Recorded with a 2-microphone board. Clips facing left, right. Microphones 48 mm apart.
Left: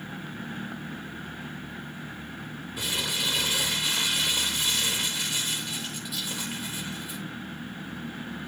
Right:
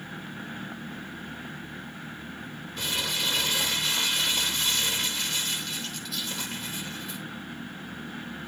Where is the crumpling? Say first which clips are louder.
Even; 10° left (ahead or behind), 4 m.